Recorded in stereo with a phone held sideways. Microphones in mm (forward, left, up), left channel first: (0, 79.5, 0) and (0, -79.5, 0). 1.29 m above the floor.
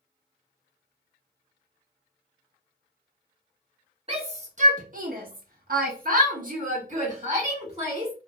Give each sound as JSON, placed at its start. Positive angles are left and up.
{"t": 4.1, "sound": "a shout", "side_deg": -40, "distance_m": 1.1}